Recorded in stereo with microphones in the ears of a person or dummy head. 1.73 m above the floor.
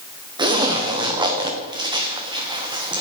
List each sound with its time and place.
0.4 s a zipper: 15° right (ahead or behind), 1.1 m